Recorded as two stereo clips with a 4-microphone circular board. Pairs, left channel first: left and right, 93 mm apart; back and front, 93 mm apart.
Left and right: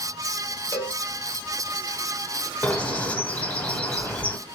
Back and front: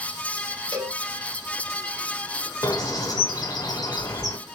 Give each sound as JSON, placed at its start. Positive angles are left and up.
{"t": 0.7, "sound": "a cowbell", "azimuth_deg": 25, "distance_m": 1.8}
{"t": 2.6, "sound": "a bird", "azimuth_deg": 155, "distance_m": 1.0}